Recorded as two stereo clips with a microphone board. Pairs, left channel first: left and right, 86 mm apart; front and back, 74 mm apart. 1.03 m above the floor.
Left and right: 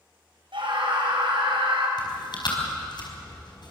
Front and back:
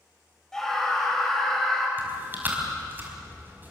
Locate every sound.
0.5 s a scream: 80° right, 6.5 m
2.0 s chewing: 120° left, 4.5 m